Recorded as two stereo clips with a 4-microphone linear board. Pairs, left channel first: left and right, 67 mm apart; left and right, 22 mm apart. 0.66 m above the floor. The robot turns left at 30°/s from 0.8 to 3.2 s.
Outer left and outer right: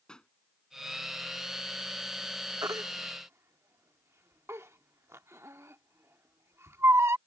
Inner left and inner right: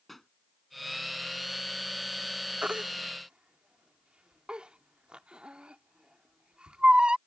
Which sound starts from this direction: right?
A baby crying, at 2.6 s.